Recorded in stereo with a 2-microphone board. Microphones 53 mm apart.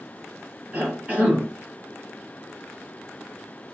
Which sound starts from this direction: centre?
A cough, at 0.7 s.